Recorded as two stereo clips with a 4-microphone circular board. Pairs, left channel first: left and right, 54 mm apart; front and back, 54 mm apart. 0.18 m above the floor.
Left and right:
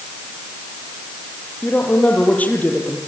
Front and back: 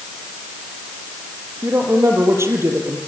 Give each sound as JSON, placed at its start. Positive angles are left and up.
{"t": 1.6, "sound": "a woman speaking", "azimuth_deg": 150, "distance_m": 6.0}